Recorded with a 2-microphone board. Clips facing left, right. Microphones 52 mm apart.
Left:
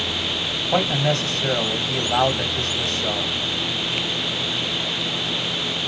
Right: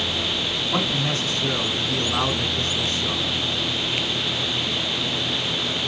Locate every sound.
0.7 s a man speaking: 55° left (ahead or behind), 2 m